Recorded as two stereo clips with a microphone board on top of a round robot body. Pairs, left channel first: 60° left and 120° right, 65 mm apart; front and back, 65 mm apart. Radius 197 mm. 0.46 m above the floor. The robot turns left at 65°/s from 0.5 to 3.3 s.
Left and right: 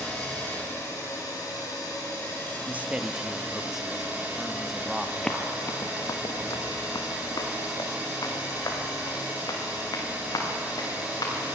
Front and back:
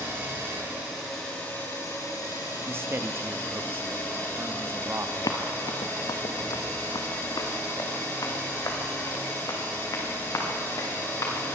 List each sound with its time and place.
0.0 s an engine running: 130° left, 9.5 m; by 11.6 s 50° right, 9.5 m
2.7 s a man speaking: 165° right, 1.5 m; by 5.1 s 155° left, 1.5 m
5.2 s running footsteps: 25° right, 0.5 m; by 11.3 s 35° left, 6.5 m